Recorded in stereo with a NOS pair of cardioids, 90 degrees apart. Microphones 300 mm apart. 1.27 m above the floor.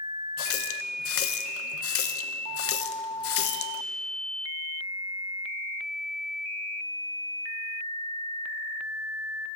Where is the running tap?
50° left, 0.6 m.